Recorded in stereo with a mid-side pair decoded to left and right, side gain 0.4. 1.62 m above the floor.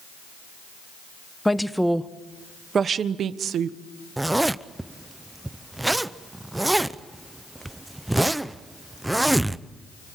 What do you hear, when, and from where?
1.4 s a woman speaking: 5° left, 1.4 m; by 3.8 s 80° right, 1.6 m
4.2 s a zipper: 15° right, 0.9 m